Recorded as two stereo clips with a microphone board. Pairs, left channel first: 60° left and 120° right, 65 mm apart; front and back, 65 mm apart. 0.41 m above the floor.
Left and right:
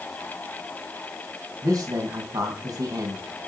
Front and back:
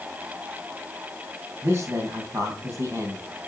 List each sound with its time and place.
1.6 s a man speaking: 125° right, 3.5 m